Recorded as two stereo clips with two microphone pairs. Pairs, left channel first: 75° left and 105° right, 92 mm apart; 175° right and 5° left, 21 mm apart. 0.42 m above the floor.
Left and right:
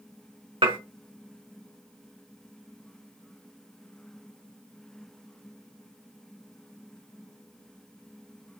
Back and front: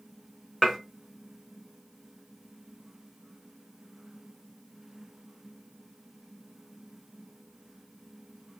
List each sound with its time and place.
0.6 s dishes clattering: 105° right, 1.7 m